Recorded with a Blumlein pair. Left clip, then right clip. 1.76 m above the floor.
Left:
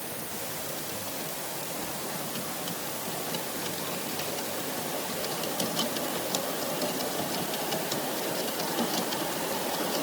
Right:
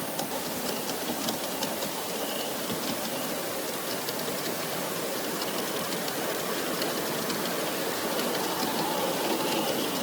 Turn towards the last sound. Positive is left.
No sound to turn to.